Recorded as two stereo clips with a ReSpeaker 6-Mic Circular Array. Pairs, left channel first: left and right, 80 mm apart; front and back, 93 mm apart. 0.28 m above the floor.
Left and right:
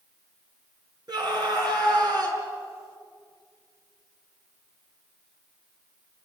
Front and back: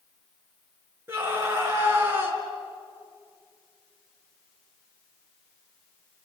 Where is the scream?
120° right, 4 m.